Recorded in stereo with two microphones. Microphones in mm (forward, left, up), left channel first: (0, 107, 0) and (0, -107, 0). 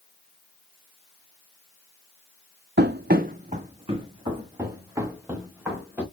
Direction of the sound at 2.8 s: 55° right (ahead or behind).